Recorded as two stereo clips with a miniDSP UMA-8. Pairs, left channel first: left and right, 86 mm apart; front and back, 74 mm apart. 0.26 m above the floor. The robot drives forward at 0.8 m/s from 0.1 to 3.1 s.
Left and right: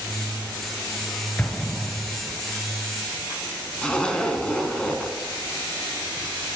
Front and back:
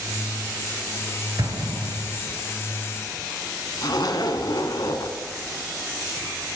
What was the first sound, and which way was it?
An explosion, 160° left.